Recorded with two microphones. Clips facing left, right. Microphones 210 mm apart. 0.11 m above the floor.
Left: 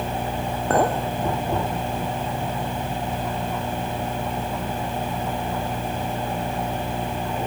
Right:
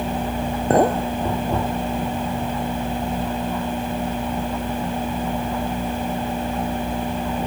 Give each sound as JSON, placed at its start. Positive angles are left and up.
{"t": 0.7, "sound": "a clink", "side_deg": -20, "distance_m": 1.5}